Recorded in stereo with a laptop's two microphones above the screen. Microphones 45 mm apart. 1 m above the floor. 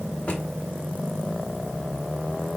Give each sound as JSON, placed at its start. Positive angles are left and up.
{"t": 0.3, "sound": "a drawer", "side_deg": 35, "distance_m": 1.1}